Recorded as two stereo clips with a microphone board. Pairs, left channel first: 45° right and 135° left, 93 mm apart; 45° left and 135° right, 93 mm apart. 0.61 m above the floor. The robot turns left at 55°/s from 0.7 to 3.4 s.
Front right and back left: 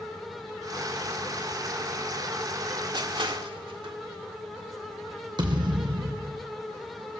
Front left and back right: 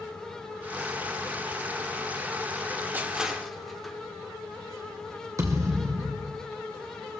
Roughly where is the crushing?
Behind.